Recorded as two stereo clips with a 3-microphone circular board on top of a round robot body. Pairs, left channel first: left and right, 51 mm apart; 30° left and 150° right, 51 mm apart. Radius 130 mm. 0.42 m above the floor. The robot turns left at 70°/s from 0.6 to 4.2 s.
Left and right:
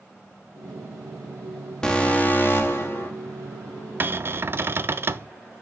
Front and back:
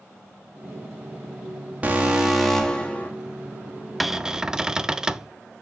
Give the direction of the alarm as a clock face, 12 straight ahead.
7 o'clock.